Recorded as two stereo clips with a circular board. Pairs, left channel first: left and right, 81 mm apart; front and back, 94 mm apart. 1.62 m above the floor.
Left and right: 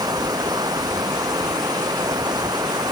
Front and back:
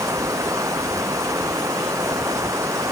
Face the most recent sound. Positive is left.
turn(degrees=-125)